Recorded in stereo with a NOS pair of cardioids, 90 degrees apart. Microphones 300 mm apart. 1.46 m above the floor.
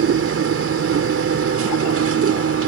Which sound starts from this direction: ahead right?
A machine running, at 0.0 s.